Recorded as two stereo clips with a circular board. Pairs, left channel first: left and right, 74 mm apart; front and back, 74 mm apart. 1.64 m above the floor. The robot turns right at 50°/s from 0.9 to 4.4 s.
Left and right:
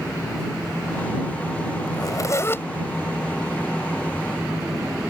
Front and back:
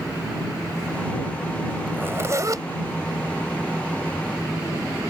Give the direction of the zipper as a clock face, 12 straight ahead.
8 o'clock.